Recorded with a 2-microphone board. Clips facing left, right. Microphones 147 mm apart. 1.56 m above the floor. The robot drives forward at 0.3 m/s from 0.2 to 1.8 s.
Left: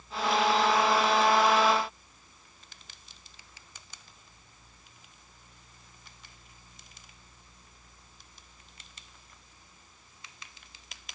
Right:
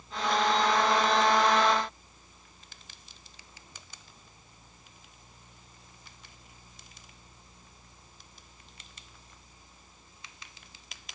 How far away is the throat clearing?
I don't hear throat clearing.